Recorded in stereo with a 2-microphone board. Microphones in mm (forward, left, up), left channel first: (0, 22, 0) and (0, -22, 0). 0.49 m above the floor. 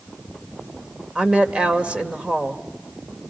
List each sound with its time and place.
1.1 s a woman speaking: 25° right (ahead or behind), 1.8 m